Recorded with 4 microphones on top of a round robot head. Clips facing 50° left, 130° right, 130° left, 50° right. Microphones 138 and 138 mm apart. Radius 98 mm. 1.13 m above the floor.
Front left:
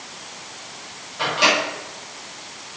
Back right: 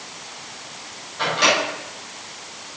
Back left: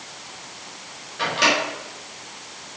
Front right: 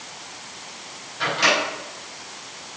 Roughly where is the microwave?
Behind left.